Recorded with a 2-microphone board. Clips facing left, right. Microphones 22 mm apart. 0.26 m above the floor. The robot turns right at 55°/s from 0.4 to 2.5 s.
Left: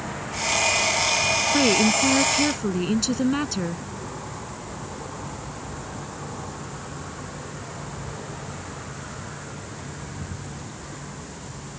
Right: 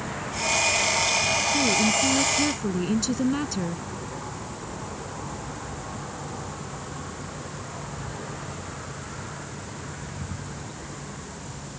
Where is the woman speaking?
110° left; by 3.9 s 165° left.